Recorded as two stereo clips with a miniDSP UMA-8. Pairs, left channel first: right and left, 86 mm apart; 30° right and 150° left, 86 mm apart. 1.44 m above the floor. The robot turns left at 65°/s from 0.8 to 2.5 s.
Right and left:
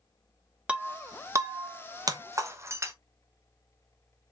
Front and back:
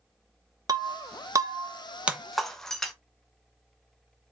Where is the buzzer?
I don't hear a buzzer.